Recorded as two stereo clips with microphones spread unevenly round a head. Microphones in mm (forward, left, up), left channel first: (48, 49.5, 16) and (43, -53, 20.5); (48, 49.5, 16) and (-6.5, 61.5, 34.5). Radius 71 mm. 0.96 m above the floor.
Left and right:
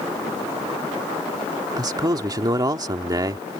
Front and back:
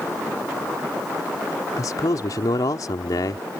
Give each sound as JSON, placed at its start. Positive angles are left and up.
{"t": 1.8, "sound": "a man speaking", "azimuth_deg": -40}